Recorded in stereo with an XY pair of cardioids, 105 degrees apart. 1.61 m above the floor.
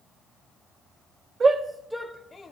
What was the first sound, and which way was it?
A shout, 40° right.